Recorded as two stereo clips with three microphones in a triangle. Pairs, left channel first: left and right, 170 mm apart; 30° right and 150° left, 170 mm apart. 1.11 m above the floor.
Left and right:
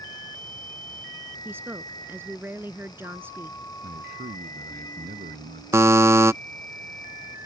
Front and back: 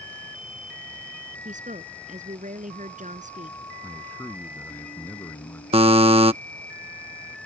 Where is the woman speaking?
165° right.